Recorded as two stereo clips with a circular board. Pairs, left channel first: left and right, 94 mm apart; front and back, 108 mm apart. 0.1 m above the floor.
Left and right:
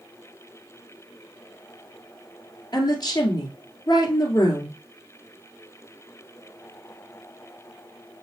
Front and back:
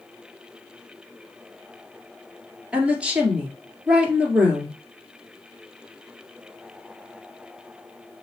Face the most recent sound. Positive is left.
turn(degrees=105)